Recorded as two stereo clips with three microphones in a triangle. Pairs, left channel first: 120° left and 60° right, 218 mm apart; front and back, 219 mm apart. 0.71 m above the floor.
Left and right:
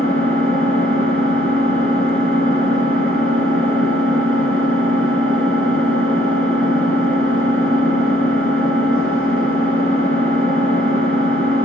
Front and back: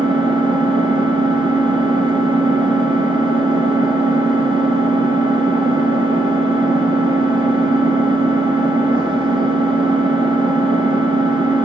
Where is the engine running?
115° left, 3.5 m.